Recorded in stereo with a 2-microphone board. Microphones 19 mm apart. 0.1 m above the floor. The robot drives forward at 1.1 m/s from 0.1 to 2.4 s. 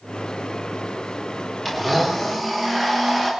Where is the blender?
5° right (ahead or behind), 7 m.